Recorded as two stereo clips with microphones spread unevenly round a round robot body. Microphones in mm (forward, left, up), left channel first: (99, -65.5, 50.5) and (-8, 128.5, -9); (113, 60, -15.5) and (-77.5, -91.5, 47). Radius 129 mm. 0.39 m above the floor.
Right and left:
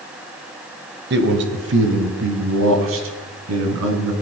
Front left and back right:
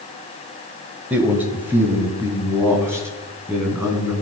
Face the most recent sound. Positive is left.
turn(degrees=135)